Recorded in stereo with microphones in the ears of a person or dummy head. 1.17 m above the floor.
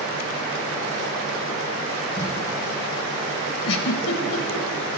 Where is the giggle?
70° left (ahead or behind), 1.1 m.